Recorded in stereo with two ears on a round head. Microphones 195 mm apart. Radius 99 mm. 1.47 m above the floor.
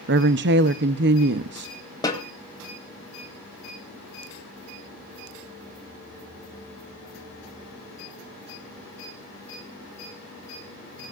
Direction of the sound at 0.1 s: 55° right (ahead or behind).